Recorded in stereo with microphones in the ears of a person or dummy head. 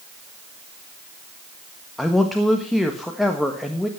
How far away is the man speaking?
About 1.4 m.